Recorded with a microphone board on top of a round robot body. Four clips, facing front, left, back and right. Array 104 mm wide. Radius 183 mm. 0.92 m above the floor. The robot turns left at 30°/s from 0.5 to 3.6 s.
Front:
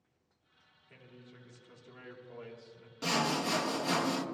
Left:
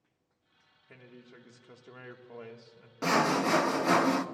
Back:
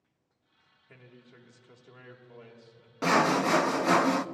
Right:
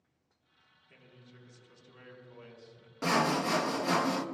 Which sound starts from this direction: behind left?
A man speaking, at 0.9 s.